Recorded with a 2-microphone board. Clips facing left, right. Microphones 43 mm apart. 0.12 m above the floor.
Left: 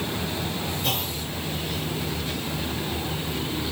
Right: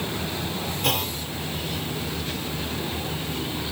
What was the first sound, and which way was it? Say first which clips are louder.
A clunk: right 6 dB; 80° right.